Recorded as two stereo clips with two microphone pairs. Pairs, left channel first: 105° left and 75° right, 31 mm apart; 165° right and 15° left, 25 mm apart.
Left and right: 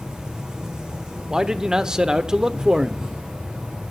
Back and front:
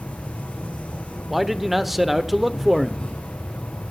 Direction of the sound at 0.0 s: 145° right.